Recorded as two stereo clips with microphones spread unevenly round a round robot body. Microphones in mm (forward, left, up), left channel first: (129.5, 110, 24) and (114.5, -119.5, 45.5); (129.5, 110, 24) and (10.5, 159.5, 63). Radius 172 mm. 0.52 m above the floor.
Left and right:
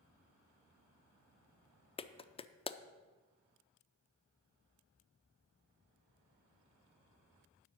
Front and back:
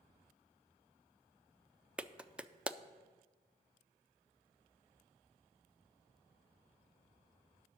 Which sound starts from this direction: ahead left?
A clap, at 2.0 s.